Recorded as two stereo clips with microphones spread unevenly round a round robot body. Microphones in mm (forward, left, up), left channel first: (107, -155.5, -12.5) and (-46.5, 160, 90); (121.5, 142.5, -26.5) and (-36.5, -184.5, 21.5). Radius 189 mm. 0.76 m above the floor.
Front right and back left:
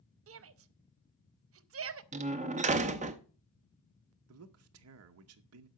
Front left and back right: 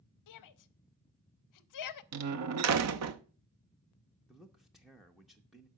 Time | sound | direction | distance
0.3 | a shout | 55° left | 0.8 m
2.1 | a door slam | 165° right | 0.6 m
4.3 | a man speaking | 140° left | 0.7 m